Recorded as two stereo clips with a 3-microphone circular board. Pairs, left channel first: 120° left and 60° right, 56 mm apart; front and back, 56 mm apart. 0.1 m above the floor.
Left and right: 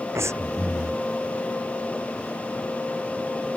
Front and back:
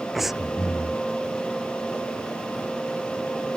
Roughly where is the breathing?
Right.